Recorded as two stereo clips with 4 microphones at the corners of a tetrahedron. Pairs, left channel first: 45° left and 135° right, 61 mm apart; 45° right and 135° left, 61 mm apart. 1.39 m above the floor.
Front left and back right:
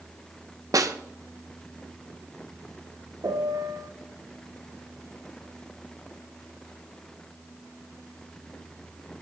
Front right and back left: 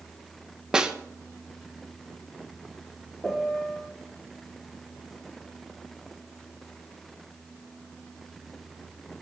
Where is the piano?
125° right, 0.9 m.